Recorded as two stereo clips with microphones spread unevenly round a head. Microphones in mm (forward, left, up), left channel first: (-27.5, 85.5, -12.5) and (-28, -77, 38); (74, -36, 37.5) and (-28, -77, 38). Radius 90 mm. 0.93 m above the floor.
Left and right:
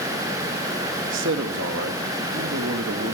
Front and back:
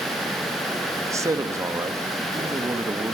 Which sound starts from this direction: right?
A man speaking, at 1.1 s.